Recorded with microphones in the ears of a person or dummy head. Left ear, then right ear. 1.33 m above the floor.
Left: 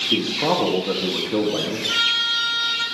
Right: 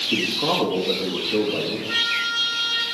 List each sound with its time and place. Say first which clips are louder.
0.1 s a man speaking: left 1 dB; 60° left (ahead or behind), 2 m
1.9 s a trumpet: left 3 dB; 75° left (ahead or behind), 4.5 m